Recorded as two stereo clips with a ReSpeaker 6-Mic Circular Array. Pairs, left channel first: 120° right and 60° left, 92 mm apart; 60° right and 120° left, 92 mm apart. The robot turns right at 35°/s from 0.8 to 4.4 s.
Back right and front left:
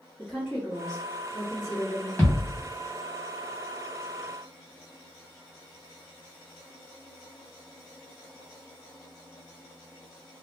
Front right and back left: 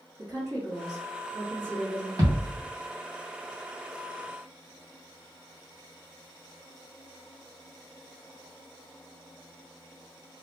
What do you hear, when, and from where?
0.2 s a woman speaking: 145° left, 1.8 m; by 2.1 s 170° right, 1.8 m
2.2 s a thud: 170° left, 1.7 m; by 2.6 s 175° right, 1.7 m